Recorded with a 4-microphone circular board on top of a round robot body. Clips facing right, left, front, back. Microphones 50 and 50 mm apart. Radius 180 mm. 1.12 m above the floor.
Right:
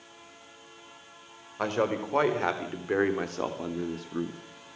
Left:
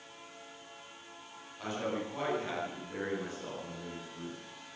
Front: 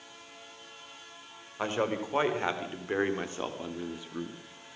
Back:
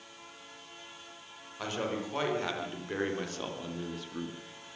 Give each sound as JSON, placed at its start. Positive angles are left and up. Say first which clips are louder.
{"t": 1.6, "sound": "a man speaking", "louder": "right 8 dB, front 4 dB", "azimuth_deg": -55, "distance_m": 4.5}